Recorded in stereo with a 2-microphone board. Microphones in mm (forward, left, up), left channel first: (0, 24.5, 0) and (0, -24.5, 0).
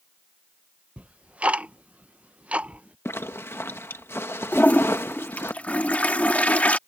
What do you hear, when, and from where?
1.0 s ticking: 30° right (ahead or behind)
3.0 s a zipper: 60° left (ahead or behind)
4.5 s a toilet flushing: 30° left (ahead or behind)